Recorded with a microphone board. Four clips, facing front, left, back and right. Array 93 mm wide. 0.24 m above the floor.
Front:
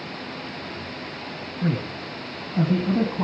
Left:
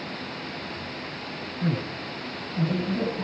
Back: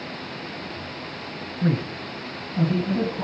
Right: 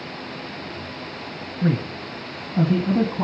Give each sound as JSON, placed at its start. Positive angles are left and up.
{"t": 1.6, "sound": "a man speaking", "azimuth_deg": -105, "distance_m": 1.2}